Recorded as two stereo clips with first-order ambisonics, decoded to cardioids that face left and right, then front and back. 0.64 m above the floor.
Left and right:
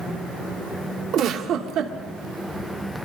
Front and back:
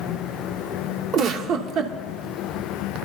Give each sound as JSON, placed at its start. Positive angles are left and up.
{"t": 1.1, "sound": "a giggle", "azimuth_deg": -130, "distance_m": 0.8}